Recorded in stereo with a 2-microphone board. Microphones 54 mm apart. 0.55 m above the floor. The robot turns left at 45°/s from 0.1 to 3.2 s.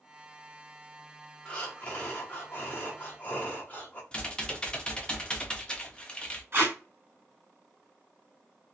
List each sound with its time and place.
1.4 s breathing: 145° left, 1.0 m; by 4.0 s 65° left, 1.0 m
4.1 s typing on a keyboard: 20° left (ahead or behind), 0.5 m
6.5 s tape being pulled: 40° right (ahead or behind), 1.7 m